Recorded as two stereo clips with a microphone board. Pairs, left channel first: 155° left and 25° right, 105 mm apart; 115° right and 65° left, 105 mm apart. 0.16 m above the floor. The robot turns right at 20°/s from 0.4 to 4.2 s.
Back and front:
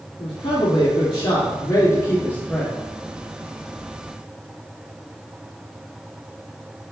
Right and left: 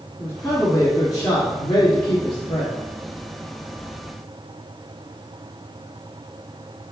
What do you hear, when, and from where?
0.2 s a man speaking: 175° right, 2.5 m; by 2.7 s 130° right, 2.5 m